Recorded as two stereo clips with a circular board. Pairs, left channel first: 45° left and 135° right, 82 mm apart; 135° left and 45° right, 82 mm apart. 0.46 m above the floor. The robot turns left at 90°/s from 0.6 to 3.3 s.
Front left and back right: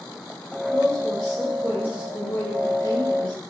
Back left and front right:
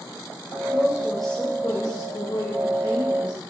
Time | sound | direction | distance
0.7 | a woman speaking | 90° right | 1.8 m